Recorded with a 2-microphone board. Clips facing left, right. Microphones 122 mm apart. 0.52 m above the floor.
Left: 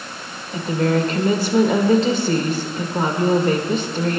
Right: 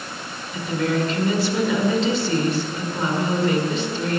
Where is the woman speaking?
45° left (ahead or behind), 1.5 m.